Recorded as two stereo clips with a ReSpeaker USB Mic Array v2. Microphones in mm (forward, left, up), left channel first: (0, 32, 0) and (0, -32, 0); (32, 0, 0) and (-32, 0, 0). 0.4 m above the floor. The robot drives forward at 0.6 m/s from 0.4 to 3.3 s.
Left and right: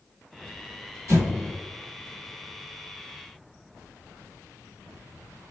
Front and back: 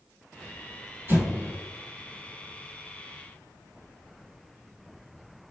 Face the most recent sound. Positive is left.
turn(degrees=-145)